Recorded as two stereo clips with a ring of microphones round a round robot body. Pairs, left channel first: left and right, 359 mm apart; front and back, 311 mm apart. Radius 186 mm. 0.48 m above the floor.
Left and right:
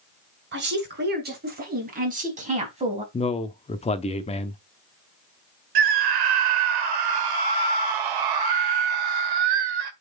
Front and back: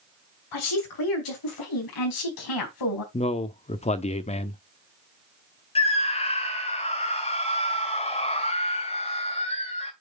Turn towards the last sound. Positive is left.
turn(degrees=-75)